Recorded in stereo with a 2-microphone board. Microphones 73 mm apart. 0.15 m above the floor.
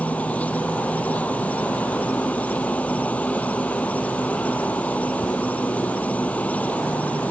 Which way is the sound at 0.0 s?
20° left (ahead or behind).